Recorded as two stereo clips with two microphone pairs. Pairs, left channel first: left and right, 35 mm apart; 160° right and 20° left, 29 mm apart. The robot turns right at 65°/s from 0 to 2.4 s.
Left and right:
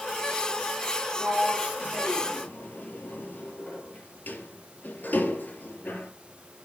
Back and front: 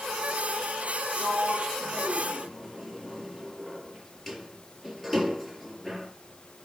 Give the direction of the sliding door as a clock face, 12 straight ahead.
11 o'clock.